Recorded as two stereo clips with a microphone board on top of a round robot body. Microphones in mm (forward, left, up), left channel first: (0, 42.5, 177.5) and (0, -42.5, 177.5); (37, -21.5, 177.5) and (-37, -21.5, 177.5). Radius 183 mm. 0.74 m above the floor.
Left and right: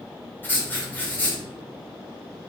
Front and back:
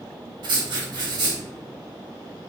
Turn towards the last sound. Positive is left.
turn(degrees=160)